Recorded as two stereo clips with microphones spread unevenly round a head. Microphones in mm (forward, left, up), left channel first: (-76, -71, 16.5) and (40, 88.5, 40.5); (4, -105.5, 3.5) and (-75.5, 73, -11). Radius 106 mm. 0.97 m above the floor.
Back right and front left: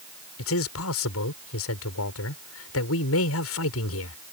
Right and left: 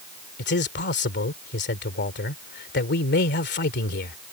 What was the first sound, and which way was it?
A man speaking, 105° right.